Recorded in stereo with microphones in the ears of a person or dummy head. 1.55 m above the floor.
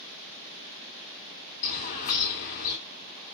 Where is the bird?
50° left (ahead or behind), 3 m.